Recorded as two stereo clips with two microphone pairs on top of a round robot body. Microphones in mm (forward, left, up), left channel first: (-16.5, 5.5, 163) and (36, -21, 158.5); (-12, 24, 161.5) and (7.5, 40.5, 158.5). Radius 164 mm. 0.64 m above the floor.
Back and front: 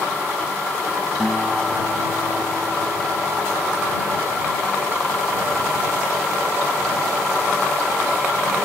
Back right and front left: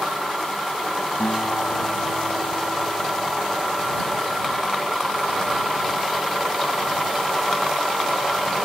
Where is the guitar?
110° right.